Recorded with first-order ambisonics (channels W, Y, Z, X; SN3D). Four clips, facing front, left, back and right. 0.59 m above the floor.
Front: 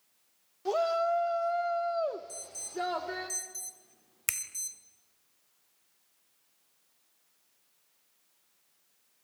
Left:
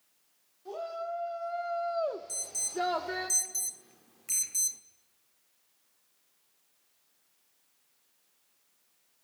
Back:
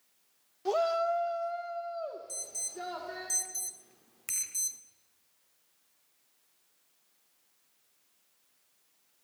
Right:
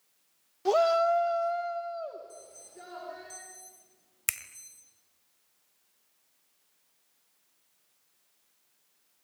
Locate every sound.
0.7 s a shout: 95° right, 1.3 m; by 3.3 s 65° left, 2.0 m
2.3 s an alarm: 105° left, 1.5 m
4.3 s a finger snap: 55° right, 2 m